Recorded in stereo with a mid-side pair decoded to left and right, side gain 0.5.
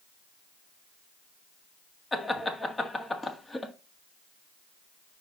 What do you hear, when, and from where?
2.1 s laughter: 20° left, 1.9 m